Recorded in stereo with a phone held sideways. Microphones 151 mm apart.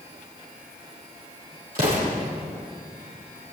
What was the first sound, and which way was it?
An explosion, 70° right (ahead or behind).